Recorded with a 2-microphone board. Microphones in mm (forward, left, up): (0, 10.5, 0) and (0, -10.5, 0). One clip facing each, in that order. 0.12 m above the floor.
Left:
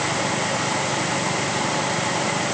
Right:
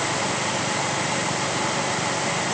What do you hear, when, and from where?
Only background noise.